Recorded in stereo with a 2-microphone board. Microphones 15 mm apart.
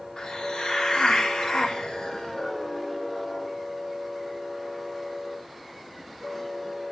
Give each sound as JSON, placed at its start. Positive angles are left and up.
{"t": 0.2, "sound": "a hiss", "side_deg": 75, "distance_m": 2.5}